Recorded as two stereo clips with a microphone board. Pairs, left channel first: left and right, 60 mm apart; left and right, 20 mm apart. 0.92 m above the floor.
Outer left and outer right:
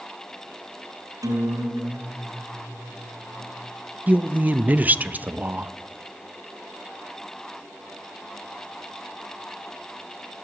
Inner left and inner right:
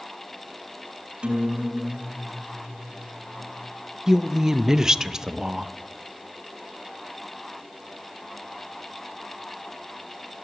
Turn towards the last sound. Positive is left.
turn(degrees=-25)  # may be behind; listen again after turning